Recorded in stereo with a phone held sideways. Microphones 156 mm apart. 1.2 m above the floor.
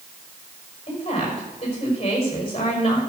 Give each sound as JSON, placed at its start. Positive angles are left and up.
{"t": 0.9, "sound": "a woman speaking", "side_deg": 40, "distance_m": 5.0}